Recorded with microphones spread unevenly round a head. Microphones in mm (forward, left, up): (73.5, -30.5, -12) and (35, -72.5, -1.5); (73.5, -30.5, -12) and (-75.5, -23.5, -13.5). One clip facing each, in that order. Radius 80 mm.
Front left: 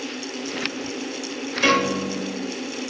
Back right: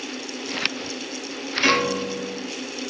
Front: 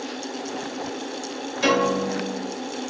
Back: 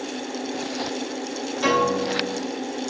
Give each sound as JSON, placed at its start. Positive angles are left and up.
{"t": 1.6, "sound": "a piano", "azimuth_deg": 70, "distance_m": 1.5}